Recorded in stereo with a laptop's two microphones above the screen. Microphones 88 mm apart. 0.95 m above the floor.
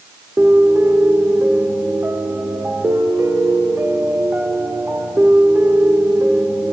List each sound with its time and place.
0.4 s a piano: 25° right (ahead or behind), 0.6 m